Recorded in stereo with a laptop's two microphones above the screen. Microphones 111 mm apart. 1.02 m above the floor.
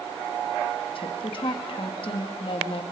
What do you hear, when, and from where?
0.9 s a woman speaking: 55° left (ahead or behind), 2.0 m